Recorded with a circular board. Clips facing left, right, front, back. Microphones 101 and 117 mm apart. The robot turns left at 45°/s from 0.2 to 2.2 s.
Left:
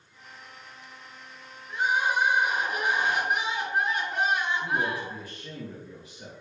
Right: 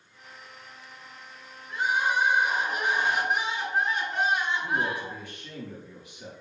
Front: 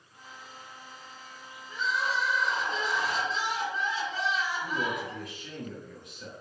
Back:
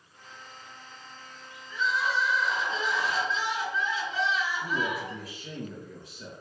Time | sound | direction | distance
1.7 | crying | 30° left | 1.9 m
4.6 | a man speaking | 135° left | 1.9 m